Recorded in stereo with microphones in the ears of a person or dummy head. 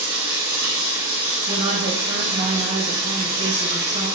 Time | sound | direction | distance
0.0 | running water | 20° right (ahead or behind) | 1.3 m
1.5 | a woman speaking | 30° right (ahead or behind) | 1.1 m